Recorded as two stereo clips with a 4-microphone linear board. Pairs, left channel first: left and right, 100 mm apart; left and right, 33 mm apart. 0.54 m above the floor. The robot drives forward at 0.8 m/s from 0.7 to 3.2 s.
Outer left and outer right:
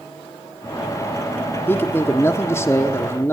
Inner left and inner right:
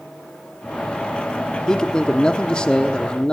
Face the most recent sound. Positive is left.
turn(degrees=20)  # may be behind; listen again after turning